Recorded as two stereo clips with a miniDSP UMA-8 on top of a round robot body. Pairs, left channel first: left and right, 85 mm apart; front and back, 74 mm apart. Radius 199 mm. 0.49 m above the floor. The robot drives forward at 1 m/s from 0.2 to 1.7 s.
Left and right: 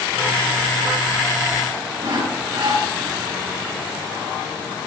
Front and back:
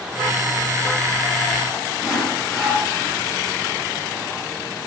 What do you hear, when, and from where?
2.0 s sawing: 100° right, 7 m